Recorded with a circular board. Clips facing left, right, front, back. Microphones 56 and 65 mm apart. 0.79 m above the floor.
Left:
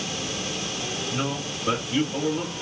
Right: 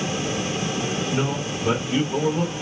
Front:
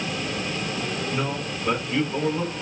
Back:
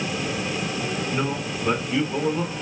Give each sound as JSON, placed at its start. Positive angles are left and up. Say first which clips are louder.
{"t": 1.1, "sound": "a man speaking", "louder": "right 4 dB, back 1 dB", "azimuth_deg": -105, "distance_m": 2.5}